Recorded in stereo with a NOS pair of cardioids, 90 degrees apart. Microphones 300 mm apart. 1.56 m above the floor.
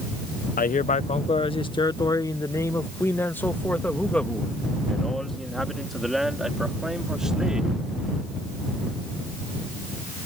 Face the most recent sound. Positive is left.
turn(degrees=-5)